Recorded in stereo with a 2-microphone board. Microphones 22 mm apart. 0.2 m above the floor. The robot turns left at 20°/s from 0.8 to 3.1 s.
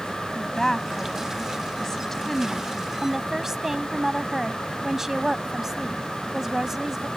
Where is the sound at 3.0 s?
20° right (ahead or behind).